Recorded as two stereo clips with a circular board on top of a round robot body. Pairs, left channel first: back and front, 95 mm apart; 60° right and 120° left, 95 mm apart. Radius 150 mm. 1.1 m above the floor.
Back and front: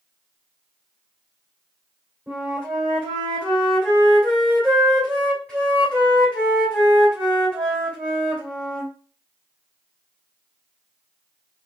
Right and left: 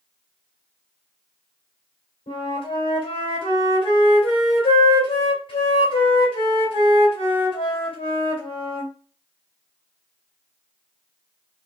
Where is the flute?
100° right, 2 m.